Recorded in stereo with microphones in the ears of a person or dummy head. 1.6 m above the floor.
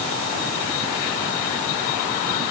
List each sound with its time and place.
Only background noise.